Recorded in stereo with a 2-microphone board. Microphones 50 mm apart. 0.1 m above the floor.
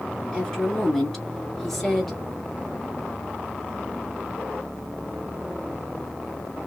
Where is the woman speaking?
5° left (ahead or behind), 1.1 m.